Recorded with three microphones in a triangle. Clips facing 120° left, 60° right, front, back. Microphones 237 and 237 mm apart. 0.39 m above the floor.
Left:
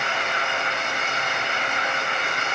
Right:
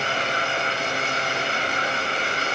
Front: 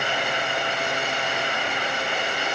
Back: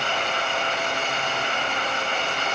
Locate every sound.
Only background noise.